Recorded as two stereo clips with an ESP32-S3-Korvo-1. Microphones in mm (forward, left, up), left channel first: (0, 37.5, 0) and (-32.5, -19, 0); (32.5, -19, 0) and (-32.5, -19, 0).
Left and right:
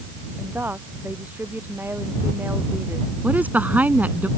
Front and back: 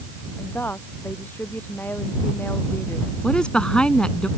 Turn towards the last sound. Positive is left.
turn(degrees=-70)